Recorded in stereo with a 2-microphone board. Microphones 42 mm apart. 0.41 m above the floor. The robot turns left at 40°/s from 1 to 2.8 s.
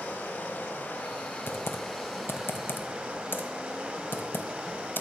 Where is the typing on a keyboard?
60° left (ahead or behind), 1.1 m.